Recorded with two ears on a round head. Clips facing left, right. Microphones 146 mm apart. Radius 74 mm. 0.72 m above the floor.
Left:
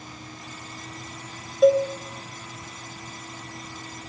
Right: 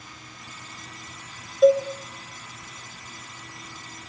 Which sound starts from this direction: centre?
A cowbell, at 1.6 s.